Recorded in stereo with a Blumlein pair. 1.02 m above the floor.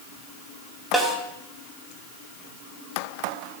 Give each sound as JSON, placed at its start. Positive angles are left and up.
{"t": 0.9, "sound": "a snare drum", "azimuth_deg": 0, "distance_m": 2.0}